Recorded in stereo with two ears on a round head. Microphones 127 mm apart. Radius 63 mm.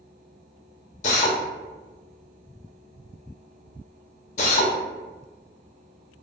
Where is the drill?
50° left (ahead or behind), 0.6 m.